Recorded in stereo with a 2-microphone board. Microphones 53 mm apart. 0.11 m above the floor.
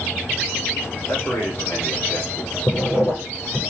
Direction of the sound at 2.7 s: 60° left (ahead or behind).